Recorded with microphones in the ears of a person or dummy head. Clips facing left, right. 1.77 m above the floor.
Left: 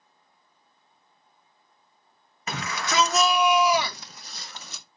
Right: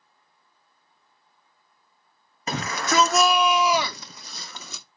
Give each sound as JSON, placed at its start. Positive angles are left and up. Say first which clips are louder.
{"t": 2.5, "sound": "a shout", "louder": "right 4 dB", "side_deg": -35, "distance_m": 1.1}